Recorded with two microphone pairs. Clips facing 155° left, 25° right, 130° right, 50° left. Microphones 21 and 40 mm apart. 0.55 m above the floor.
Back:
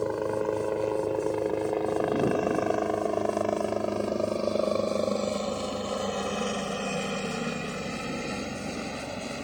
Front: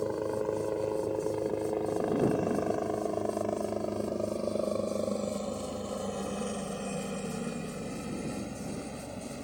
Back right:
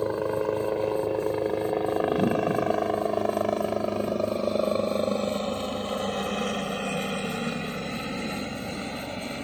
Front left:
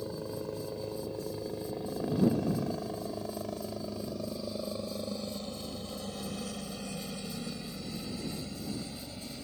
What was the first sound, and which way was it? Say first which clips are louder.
A helicopter: back 3 dB, back right 12 dB; 145° right.